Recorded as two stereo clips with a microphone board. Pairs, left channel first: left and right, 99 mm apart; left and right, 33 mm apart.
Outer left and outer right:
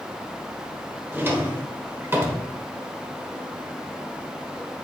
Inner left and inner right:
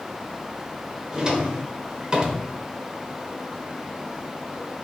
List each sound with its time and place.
1.1 s a drawer: 25° right (ahead or behind), 1.4 m